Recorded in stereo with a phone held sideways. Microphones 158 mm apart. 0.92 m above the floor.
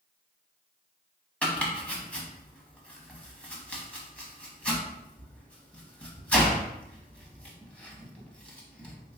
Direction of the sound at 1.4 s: 5° left (ahead or behind).